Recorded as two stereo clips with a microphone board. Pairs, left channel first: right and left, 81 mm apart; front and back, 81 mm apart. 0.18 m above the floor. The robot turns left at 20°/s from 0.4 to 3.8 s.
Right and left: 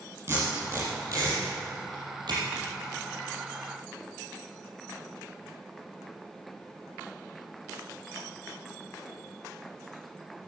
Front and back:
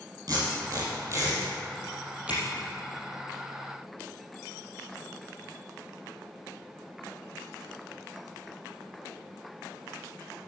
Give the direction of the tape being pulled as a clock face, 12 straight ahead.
7 o'clock.